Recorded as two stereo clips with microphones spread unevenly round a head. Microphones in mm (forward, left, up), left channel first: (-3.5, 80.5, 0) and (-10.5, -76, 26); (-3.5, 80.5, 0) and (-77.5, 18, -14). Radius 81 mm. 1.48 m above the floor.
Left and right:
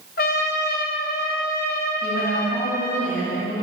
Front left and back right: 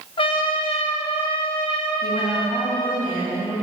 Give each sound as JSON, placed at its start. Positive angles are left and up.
{"t": 0.2, "sound": "a trumpet", "azimuth_deg": 50, "distance_m": 1.0}
{"t": 2.0, "sound": "a woman speaking", "azimuth_deg": 80, "distance_m": 3.5}